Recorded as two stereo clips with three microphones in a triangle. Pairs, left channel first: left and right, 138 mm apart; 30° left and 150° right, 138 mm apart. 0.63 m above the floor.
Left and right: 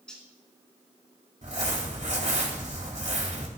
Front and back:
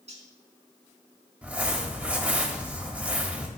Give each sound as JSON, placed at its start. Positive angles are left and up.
{"t": 0.1, "sound": "cutlery clinking", "azimuth_deg": 175, "distance_m": 3.5}
{"t": 1.4, "sound": "crumpling", "azimuth_deg": -70, "distance_m": 3.0}